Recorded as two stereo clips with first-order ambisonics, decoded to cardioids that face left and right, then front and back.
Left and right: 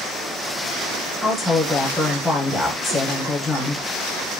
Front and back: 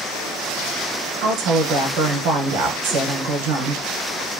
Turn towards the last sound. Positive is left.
turn(degrees=-175)